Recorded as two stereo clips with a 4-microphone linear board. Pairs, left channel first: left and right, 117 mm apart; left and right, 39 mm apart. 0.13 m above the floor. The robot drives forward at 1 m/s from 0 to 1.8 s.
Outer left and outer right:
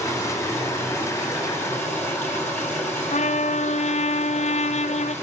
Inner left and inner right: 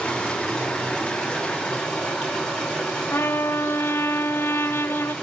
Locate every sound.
0.0 s running water: 25° left (ahead or behind), 7 m; by 5.2 s 20° left (ahead or behind), 9 m
3.1 s a trumpet: 75° left (ahead or behind), 0.6 m